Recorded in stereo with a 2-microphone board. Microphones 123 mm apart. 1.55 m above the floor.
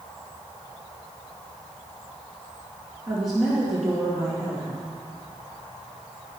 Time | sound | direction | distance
3.1 | a woman speaking | 5° right (ahead or behind) | 2.5 m